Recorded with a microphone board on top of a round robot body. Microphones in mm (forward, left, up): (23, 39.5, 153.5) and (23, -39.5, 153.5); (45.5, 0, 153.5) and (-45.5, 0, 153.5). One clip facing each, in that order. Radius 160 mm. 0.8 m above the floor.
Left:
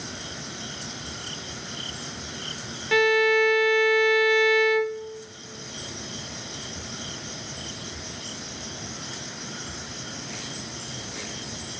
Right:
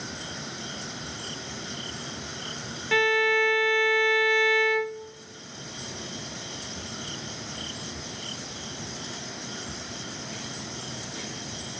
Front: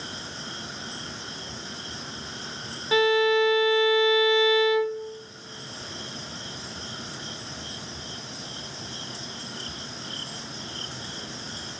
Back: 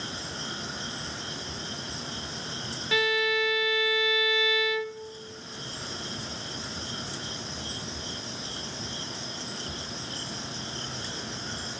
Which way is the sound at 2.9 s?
5° left.